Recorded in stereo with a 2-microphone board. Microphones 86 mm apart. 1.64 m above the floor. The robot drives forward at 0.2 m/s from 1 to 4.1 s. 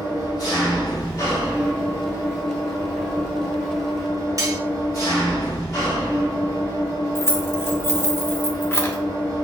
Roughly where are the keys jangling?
Left.